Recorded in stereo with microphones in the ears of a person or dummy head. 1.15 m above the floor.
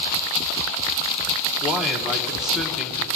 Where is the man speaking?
Centre (ahead or behind), 1.1 m.